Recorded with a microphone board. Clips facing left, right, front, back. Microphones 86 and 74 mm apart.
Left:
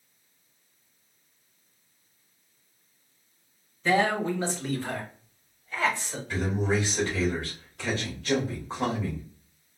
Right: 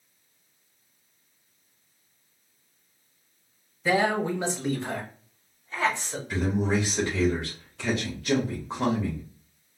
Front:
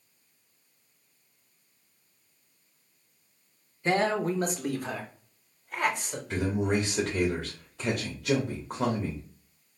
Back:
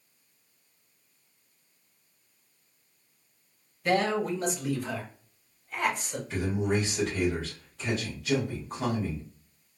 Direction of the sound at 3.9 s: 15° right.